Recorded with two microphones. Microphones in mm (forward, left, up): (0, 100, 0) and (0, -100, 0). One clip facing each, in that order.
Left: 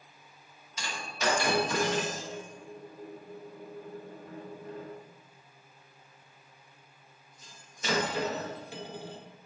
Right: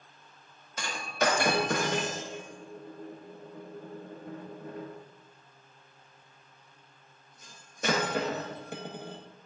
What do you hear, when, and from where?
0.8 s breaking glass: 55° right (ahead or behind), 0.7 m